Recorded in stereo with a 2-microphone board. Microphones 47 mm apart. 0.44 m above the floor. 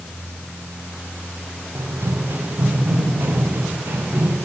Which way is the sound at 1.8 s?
70° right (ahead or behind).